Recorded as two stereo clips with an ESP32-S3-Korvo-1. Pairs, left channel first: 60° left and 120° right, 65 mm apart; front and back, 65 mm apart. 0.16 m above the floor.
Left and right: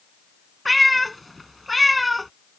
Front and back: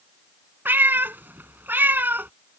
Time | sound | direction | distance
0.7 | a cat meowing | 150° left | ?